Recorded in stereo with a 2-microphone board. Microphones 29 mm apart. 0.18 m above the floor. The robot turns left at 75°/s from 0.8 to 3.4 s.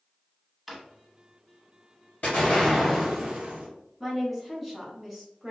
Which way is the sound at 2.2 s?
50° left.